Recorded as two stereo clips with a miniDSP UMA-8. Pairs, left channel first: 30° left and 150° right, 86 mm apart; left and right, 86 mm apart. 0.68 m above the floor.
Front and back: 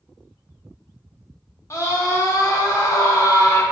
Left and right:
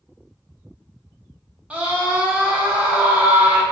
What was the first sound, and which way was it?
A scream, 15° right.